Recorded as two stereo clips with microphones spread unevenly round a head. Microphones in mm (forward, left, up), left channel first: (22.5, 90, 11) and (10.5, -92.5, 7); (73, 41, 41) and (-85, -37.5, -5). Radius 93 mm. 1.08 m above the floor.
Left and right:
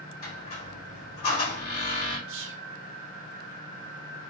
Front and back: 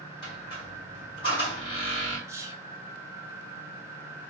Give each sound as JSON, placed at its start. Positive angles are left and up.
{"t": 0.2, "sound": "a squeak", "azimuth_deg": 85, "distance_m": 1.8}
{"t": 2.3, "sound": "whispering", "azimuth_deg": -85, "distance_m": 0.7}